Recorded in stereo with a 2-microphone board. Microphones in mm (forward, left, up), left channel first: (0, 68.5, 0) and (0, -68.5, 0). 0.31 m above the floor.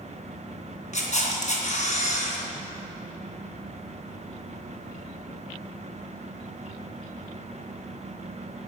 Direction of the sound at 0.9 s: 60° left (ahead or behind).